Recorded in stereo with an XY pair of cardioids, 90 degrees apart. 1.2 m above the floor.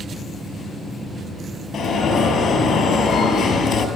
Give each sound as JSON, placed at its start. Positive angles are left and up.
{"t": 1.7, "sound": "an alarm", "azimuth_deg": 65, "distance_m": 6.5}